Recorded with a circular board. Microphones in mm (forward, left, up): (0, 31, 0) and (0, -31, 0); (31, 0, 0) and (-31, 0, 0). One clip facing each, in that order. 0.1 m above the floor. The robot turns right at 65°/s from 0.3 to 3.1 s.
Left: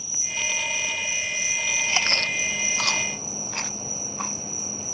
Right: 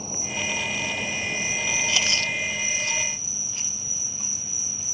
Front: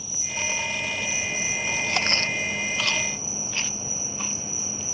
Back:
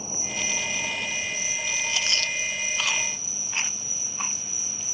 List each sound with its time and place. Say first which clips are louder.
0.0 s an insect: right 2 dB, even; 130° right; by 4.9 s 55° left
1.9 s chewing: left 1 dB, front 4 dB; 30° left; by 4.3 s 110° left